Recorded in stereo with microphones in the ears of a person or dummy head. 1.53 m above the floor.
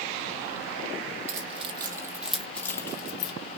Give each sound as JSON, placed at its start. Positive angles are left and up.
{"t": 1.3, "sound": "keys jangling", "side_deg": -40, "distance_m": 1.1}